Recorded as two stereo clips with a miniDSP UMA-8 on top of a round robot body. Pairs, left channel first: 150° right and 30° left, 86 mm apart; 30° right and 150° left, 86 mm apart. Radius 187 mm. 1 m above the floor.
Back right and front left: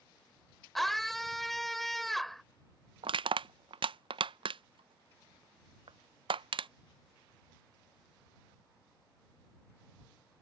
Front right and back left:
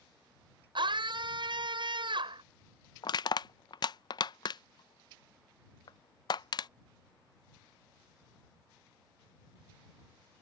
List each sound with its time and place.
0.8 s a scream: 120° left
3.0 s crushing: 10° left